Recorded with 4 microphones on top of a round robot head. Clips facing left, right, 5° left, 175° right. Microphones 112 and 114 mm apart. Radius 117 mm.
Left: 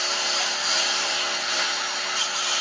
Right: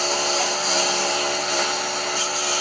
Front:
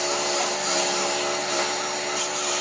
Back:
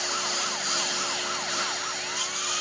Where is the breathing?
No breathing in this recording.